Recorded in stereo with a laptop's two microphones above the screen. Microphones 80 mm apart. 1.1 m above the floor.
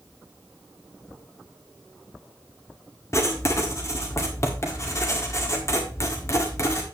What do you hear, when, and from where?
3.1 s writing: 40° left (ahead or behind), 1.5 m